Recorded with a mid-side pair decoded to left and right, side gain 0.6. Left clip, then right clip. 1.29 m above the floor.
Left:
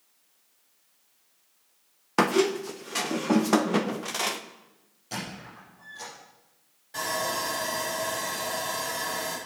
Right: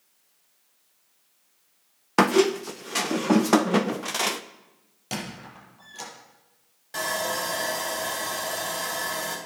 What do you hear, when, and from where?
2.2 s a squeak: 15° right, 0.6 m
5.1 s a squeak: 55° right, 5 m
6.9 s sawing: 40° right, 5.5 m